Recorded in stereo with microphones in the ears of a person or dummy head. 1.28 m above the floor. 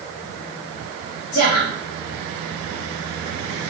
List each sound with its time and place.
1.3 s a woman speaking: 50° left (ahead or behind), 2.5 m